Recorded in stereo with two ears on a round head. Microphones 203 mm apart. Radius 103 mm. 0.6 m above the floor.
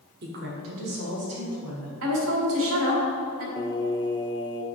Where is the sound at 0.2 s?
50° right (ahead or behind), 1.4 m; by 1.9 s 80° right, 3.5 m.